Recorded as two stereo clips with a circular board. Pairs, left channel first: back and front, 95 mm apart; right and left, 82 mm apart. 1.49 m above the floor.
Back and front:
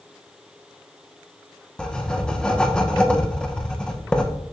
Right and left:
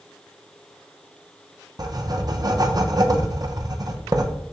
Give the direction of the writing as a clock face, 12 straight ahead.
9 o'clock.